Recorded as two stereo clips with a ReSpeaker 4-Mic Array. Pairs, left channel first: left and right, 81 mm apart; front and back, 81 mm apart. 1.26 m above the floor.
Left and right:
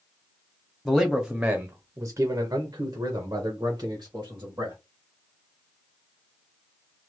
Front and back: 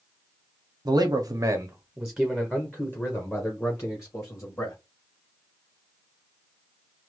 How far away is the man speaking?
About 0.8 m.